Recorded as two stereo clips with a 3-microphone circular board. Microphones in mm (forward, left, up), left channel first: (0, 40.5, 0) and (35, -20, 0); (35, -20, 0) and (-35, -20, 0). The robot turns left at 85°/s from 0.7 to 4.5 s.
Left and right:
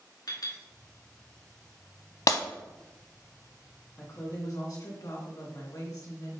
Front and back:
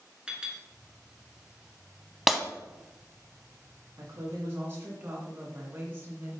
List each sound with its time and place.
0.3 s a clink: 105° left, 2 m
2.3 s breaking glass: 95° left, 0.6 m; by 2.4 s 85° left, 0.6 m
4.0 s a woman speaking: 175° left, 2.5 m; by 6.4 s 130° left, 2.5 m